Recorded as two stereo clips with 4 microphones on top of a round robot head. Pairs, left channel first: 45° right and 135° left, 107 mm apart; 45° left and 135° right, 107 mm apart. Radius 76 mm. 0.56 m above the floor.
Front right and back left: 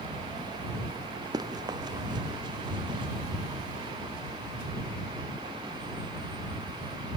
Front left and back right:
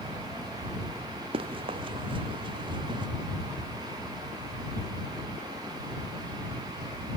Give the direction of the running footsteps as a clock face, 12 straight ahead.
6 o'clock.